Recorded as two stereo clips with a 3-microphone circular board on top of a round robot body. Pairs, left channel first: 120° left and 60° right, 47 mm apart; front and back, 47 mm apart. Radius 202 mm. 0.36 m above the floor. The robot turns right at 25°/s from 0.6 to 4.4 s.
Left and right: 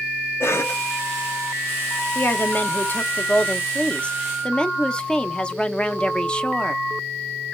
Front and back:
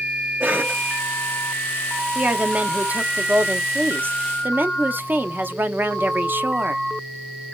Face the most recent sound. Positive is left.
turn(degrees=180)